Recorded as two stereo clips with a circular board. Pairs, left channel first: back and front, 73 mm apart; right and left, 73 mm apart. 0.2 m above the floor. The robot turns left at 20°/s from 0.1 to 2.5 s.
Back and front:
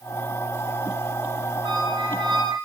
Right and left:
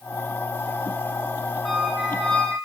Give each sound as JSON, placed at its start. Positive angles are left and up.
{"t": 1.6, "sound": "a squeak", "azimuth_deg": 0, "distance_m": 9.5}